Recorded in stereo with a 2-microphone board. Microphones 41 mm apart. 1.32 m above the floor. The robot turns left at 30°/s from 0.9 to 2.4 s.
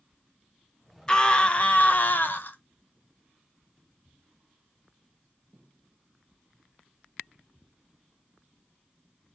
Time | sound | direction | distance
1.1 | a scream | 160° left | 0.6 m